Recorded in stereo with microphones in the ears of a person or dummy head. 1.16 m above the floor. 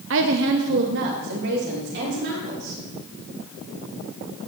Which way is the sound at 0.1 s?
65° right (ahead or behind).